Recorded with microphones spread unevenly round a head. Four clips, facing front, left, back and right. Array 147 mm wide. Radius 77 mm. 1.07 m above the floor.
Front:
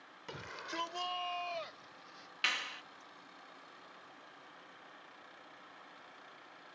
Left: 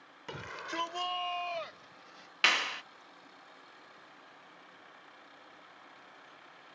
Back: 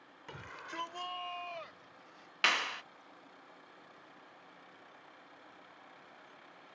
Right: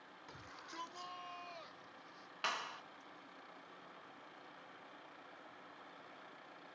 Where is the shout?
75° left; by 2.3 s 70° left.